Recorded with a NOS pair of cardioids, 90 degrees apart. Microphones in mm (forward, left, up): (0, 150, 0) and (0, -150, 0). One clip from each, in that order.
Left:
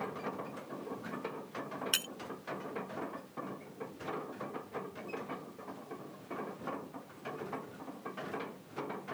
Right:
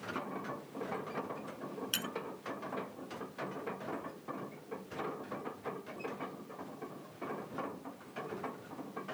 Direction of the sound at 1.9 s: 35° left.